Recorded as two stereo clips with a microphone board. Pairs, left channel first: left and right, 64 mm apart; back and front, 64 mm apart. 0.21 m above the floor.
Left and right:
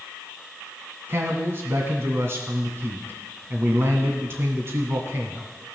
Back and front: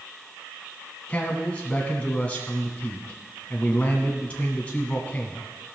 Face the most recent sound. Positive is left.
turn(degrees=-120)